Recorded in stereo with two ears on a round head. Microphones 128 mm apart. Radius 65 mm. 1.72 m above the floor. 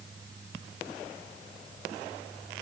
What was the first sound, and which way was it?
Only background noise.